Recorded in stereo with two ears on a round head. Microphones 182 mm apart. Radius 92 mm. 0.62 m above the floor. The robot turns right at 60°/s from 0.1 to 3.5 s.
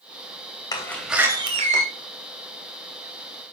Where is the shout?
No shout in this recording.